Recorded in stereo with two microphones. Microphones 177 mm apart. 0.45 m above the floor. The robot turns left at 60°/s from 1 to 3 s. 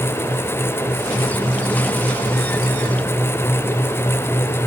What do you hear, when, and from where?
Only background noise.